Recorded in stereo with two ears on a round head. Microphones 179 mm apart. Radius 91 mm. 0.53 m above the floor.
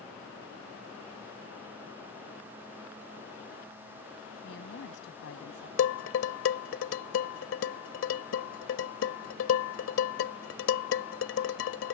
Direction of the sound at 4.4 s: 65° left (ahead or behind).